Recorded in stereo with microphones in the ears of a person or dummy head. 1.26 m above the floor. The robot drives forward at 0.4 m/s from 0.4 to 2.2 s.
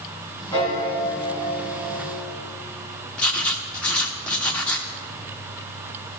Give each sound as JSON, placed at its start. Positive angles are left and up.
{"t": 0.5, "sound": "a piano", "side_deg": 15, "distance_m": 3.0}
{"t": 3.2, "sound": "writing", "side_deg": 0, "distance_m": 0.8}